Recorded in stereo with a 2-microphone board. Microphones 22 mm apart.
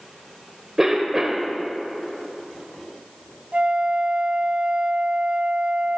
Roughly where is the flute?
Right.